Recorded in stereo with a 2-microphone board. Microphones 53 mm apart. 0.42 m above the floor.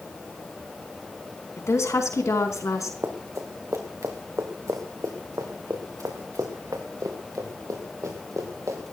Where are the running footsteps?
60° right (ahead or behind), 2.5 m; by 8.8 s 75° right (ahead or behind), 4.5 m.